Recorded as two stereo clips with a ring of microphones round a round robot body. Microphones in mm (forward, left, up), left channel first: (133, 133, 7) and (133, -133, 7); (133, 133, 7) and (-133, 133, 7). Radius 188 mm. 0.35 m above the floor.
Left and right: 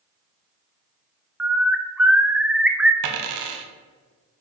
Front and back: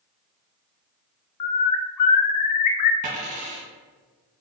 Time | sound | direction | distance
1.4 | a bird | 5° right | 0.8 m
3.0 | a dropped coin | 110° right | 0.8 m